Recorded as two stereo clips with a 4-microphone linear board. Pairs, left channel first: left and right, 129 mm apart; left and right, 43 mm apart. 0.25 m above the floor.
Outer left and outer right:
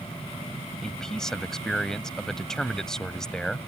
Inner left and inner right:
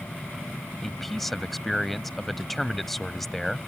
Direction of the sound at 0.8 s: 5° left (ahead or behind).